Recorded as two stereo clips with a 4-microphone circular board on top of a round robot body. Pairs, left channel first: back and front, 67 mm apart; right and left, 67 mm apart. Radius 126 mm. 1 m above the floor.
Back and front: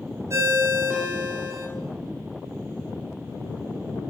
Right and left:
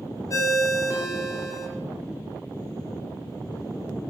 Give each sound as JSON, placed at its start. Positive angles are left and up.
{"t": 0.3, "sound": "a ringtone", "azimuth_deg": -50, "distance_m": 2.0}